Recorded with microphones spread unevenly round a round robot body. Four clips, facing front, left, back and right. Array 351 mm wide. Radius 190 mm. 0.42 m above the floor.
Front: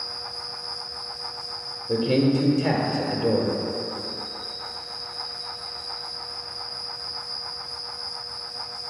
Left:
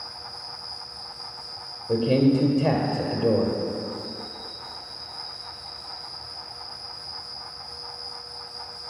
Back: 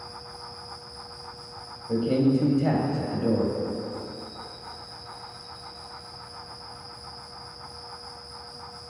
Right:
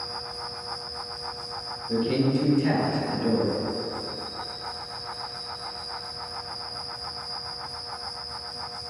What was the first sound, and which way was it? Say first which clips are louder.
An insect: right 5 dB, front 2 dB; 160° right.